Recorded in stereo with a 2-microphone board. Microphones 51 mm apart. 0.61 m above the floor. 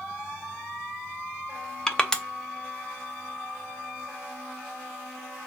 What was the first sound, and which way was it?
Crushing, 10° left (ahead or behind).